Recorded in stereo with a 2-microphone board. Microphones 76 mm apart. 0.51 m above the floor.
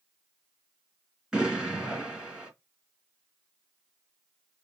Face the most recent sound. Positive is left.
turn(degrees=-10)  # may be behind; listen again after turning